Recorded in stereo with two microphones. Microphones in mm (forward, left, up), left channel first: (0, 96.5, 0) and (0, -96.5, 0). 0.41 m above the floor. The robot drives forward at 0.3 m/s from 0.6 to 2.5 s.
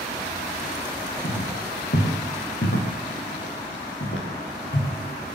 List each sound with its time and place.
1.2 s footsteps: 85° left, 8 m